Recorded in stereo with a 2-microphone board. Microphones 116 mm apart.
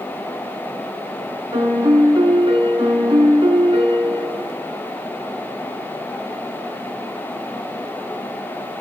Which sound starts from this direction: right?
A piano, at 1.5 s.